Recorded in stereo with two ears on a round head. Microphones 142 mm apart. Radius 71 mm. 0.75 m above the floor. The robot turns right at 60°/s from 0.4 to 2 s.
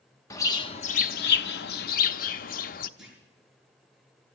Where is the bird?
20° left, 0.6 m; by 2.9 s 115° left, 0.6 m.